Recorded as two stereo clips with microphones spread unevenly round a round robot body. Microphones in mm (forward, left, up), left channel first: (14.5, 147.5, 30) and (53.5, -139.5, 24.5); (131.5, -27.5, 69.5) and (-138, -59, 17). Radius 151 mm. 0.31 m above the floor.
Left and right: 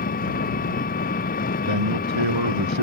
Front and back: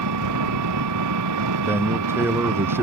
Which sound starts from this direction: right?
A man speaking, at 1.7 s.